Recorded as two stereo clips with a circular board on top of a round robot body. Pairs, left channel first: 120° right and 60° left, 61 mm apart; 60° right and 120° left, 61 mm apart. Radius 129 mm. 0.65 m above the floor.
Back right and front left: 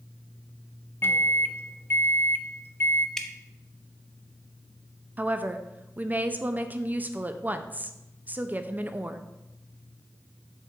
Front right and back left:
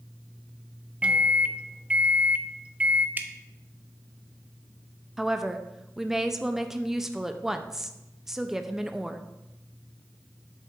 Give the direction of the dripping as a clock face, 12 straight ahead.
7 o'clock.